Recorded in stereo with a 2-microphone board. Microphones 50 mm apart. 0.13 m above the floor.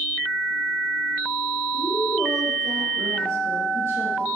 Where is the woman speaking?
55° right (ahead or behind), 2.5 m.